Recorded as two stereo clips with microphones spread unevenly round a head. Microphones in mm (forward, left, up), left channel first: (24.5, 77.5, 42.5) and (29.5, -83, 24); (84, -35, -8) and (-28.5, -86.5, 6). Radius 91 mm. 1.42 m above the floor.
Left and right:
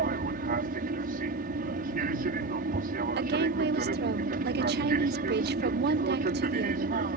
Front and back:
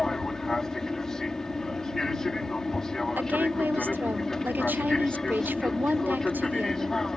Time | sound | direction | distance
0.0 | an aircraft | 60° right | ?
3.2 | a woman speaking | 75° right | ?